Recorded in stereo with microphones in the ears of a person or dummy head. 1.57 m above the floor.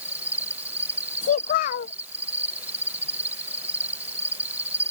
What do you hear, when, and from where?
0.0 s an insect: 15° right (ahead or behind)
1.2 s a child speaking: 45° left (ahead or behind)